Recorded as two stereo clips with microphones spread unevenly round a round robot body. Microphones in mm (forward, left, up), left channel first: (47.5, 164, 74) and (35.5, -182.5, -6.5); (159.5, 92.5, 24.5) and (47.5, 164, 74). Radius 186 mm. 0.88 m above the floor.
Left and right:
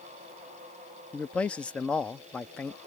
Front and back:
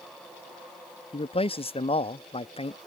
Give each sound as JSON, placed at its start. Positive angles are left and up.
{"t": 1.1, "sound": "a man speaking", "azimuth_deg": -5}